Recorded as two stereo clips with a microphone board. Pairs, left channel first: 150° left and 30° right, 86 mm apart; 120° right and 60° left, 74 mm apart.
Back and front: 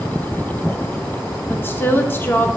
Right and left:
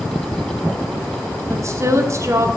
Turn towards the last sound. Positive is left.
turn(degrees=90)